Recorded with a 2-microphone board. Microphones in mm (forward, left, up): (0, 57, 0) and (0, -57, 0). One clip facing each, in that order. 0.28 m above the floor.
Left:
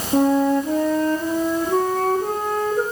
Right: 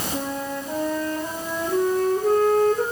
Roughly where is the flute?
Left.